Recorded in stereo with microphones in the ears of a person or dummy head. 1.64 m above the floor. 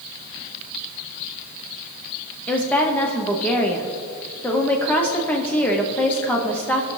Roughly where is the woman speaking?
Centre.